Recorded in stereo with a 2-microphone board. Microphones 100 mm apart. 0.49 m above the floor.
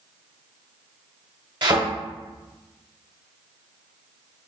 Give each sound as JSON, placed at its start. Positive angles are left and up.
{"t": 1.6, "sound": "a thud", "side_deg": -45, "distance_m": 1.1}